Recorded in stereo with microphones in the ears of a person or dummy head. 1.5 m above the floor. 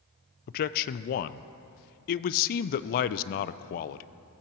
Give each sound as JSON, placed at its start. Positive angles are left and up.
{"t": 0.5, "sound": "a man speaking", "side_deg": 50, "distance_m": 0.5}